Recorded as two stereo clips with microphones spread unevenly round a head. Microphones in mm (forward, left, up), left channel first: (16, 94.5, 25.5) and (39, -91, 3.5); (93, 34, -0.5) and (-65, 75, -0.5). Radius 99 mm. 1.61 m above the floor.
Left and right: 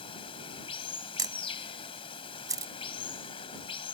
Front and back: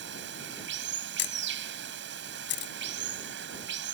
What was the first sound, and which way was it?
Running water, 165° left.